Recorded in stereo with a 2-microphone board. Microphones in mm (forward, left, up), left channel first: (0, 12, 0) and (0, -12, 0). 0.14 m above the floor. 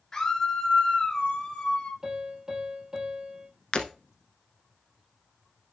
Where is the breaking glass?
40° left (ahead or behind), 1.1 m.